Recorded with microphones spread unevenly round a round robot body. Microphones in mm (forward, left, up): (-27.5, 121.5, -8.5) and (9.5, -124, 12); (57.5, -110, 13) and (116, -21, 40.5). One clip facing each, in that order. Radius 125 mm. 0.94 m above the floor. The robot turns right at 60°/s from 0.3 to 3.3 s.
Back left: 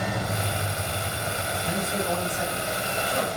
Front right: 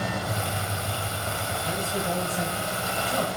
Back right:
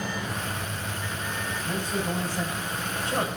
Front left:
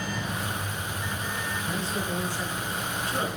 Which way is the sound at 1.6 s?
170° left.